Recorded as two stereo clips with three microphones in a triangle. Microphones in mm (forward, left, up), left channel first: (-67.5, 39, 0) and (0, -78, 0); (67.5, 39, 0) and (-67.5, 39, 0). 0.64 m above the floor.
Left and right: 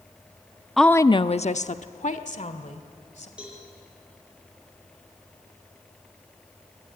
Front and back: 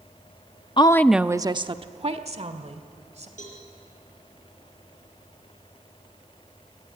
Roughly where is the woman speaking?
Ahead left.